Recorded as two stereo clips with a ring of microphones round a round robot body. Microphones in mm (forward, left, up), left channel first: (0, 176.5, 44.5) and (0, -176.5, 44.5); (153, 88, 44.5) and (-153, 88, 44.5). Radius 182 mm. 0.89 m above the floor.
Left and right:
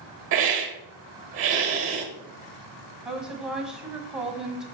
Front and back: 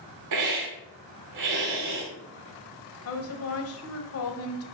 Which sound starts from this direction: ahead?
A woman speaking, at 3.0 s.